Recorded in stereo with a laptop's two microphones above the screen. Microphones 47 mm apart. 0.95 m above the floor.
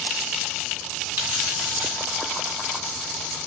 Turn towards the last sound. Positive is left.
turn(degrees=-55)  # may be behind; listen again after turning